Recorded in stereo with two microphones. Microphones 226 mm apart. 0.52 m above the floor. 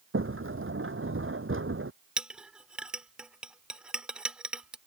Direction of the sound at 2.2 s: 5° right (ahead or behind).